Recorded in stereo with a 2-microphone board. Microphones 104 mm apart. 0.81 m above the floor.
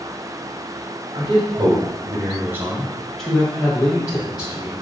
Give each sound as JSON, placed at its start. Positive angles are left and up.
{"t": 1.1, "sound": "a man speaking", "side_deg": -50, "distance_m": 1.3}